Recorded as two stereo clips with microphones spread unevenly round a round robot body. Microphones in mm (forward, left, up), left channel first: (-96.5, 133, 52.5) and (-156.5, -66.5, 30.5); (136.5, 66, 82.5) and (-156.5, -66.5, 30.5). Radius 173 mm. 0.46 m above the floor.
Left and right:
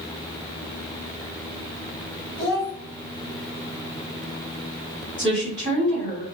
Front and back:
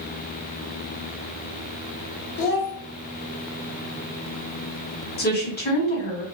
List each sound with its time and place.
2.4 s a child speaking: 25° left, 1.8 m
5.2 s a woman speaking: 40° right, 1.8 m